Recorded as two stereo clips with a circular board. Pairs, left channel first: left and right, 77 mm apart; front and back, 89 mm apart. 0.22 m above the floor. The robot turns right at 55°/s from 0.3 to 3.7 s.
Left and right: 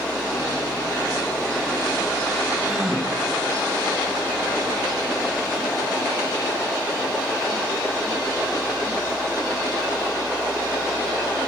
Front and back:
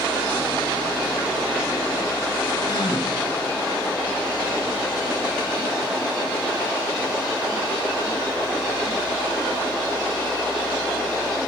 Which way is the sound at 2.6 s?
25° right.